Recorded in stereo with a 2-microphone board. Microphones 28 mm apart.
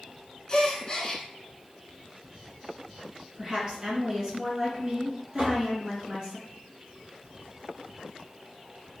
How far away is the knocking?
About 1.8 m.